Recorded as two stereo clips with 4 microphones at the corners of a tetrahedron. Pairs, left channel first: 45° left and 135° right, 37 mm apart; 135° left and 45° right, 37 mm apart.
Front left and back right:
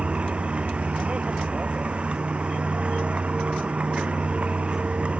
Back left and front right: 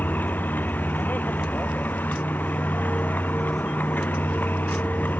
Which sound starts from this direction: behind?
A vehicle, at 0.0 s.